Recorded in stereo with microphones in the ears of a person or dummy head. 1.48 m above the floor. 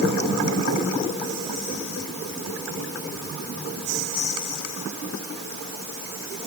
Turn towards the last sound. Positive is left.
No sound to turn to.